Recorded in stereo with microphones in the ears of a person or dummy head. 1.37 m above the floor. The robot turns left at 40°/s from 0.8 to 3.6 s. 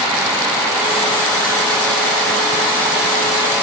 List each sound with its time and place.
Only background noise.